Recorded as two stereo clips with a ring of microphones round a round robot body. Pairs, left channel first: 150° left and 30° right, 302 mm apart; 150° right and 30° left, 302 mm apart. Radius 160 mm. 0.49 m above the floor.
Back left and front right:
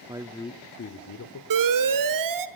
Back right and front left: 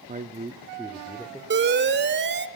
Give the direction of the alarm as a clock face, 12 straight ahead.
1 o'clock.